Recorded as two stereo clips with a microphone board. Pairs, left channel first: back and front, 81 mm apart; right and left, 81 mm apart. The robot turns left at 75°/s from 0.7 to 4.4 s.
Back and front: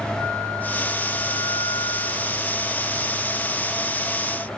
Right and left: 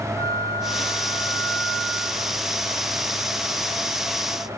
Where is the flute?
120° right, 3 m; by 3.2 s 50° left, 3 m.